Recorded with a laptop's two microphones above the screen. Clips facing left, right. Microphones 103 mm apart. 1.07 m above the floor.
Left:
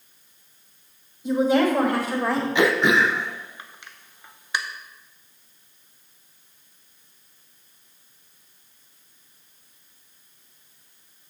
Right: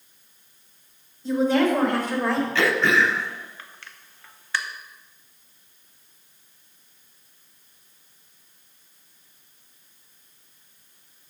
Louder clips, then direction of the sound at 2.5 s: Left 3 dB; 20° left (ahead or behind).